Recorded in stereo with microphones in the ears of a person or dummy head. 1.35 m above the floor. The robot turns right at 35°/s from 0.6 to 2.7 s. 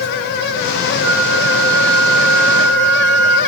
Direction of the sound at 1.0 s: 100° right.